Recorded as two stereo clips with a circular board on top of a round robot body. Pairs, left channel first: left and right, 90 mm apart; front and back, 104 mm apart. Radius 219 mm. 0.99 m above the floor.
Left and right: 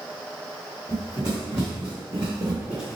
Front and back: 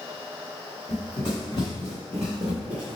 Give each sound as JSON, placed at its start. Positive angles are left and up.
{"t": 0.9, "sound": "running footsteps", "azimuth_deg": -40, "distance_m": 1.2}